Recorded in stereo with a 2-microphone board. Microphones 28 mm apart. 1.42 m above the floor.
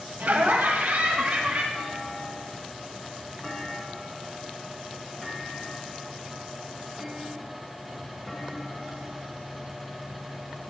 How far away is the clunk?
About 3.5 m.